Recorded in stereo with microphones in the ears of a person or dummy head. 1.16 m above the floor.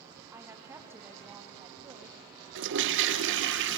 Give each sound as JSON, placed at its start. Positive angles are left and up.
{"t": 0.3, "sound": "a woman speaking", "side_deg": -15, "distance_m": 1.5}
{"t": 2.5, "sound": "a toilet flushing", "side_deg": -65, "distance_m": 1.0}